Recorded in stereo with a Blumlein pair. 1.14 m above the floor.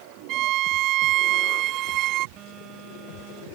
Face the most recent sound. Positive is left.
turn(degrees=-35)